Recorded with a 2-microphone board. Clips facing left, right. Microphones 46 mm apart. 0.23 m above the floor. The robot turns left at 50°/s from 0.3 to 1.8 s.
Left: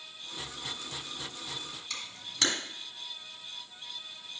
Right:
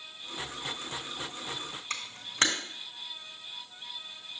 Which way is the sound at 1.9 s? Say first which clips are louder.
Right 3 dB; 40° right (ahead or behind).